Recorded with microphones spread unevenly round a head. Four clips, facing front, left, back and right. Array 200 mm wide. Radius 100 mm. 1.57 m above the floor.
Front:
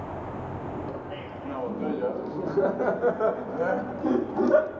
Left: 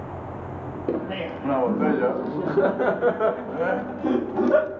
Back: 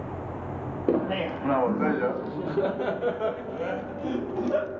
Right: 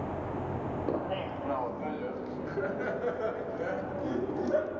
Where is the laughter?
155° left, 0.9 m; by 4.7 s 55° left, 3 m.